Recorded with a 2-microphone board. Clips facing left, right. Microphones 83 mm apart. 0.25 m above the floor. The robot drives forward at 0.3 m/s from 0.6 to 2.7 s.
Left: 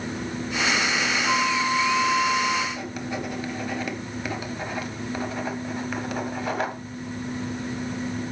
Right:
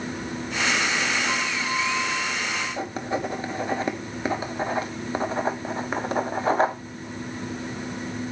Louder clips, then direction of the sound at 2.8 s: Right 3 dB; 30° right (ahead or behind).